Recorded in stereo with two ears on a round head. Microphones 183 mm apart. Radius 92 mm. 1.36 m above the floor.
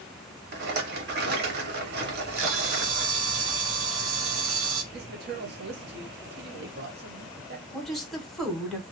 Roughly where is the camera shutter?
Right.